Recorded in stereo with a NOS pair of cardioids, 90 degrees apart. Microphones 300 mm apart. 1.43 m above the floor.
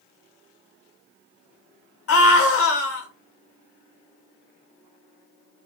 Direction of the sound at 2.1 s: 50° left.